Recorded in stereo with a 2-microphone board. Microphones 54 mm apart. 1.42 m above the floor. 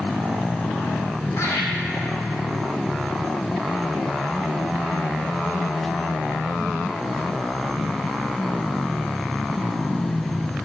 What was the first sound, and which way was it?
Laughter, 60° left (ahead or behind).